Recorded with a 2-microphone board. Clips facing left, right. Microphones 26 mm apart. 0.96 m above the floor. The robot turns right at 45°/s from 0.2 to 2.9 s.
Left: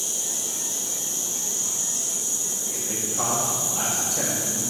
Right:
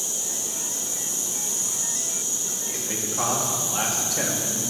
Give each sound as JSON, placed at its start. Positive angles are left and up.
{"t": 0.0, "sound": "an insect", "azimuth_deg": 100, "distance_m": 1.6}
{"t": 2.7, "sound": "a man speaking", "side_deg": -35, "distance_m": 1.5}